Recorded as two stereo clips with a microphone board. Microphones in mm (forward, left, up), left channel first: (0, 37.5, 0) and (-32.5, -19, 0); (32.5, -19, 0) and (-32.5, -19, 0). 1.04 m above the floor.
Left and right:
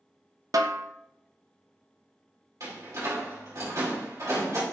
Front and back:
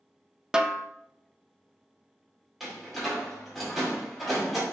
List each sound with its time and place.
0.5 s a snare drum: 105° right, 0.5 m
2.6 s a door slam: 90° right, 2.5 m